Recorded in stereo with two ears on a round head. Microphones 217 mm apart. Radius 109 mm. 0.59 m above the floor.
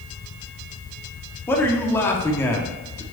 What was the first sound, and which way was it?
A man speaking, 10° left (ahead or behind).